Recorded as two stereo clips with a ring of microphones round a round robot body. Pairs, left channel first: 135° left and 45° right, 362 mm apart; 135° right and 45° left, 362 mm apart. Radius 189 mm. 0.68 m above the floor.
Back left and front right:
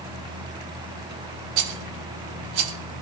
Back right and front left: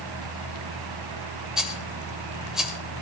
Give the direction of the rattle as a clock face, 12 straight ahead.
1 o'clock.